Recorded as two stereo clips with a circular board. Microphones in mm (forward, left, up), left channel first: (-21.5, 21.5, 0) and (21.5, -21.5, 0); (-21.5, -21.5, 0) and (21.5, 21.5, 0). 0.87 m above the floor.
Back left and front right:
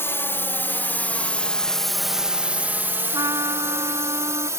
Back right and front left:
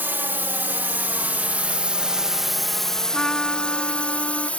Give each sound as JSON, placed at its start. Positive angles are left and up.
{"t": 0.0, "sound": "a drone", "azimuth_deg": 95}
{"t": 3.1, "sound": "a trumpet", "azimuth_deg": -55}